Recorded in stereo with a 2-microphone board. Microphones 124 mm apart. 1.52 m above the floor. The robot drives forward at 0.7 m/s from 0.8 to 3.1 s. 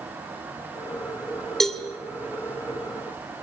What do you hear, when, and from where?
1.6 s a cowbell: centre (ahead or behind), 2.5 m